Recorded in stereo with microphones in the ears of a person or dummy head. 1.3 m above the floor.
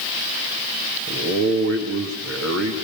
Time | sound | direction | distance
1.1 | a man speaking | 65° right (ahead or behind) | 2.5 m